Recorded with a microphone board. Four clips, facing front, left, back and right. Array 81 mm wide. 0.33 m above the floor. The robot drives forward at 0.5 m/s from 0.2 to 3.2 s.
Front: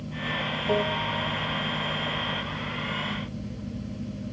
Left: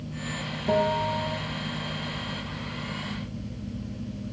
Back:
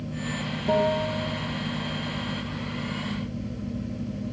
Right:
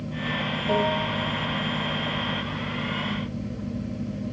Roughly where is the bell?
Behind left.